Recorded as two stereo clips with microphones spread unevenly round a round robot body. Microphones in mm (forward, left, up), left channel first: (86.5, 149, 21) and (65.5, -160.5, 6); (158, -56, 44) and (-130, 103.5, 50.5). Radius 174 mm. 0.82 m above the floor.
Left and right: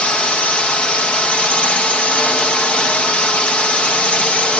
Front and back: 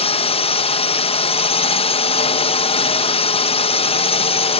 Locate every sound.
0.0 s a drone: straight ahead